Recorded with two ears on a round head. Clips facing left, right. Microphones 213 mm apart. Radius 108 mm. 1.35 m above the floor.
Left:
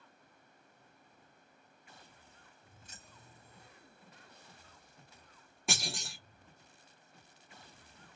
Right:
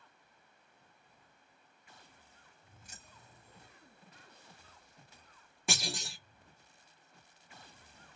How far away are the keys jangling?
About 2 m.